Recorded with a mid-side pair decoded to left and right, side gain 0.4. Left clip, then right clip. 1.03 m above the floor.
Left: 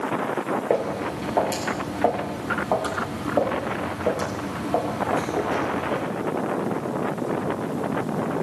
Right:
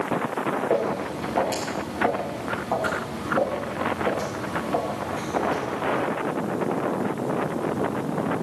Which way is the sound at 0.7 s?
45° left.